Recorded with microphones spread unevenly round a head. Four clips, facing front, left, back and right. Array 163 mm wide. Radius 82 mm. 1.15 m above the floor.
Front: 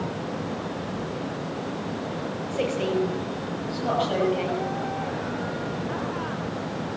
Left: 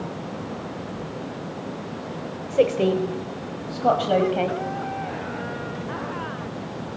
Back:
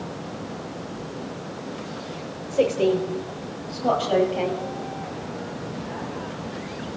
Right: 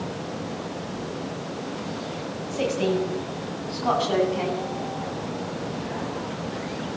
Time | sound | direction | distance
2.5 | a woman speaking | 120° left | 4.5 m